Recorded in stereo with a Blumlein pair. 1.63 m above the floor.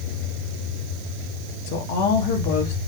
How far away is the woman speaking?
About 2.5 m.